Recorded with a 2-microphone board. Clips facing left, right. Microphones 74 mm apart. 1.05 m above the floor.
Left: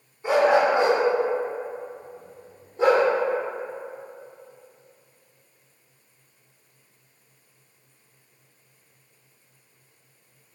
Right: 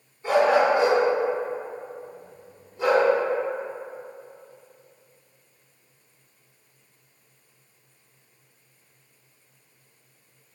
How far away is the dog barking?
About 1.1 m.